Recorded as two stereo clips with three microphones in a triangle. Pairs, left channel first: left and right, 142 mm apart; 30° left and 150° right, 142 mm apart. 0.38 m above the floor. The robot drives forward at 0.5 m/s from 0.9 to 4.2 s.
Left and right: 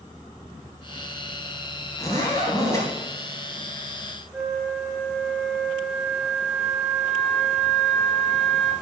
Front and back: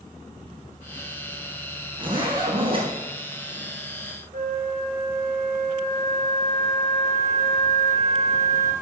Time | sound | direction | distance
2.0 | a zipper | 155° left | 3.5 m
4.3 | a flute | straight behind | 2 m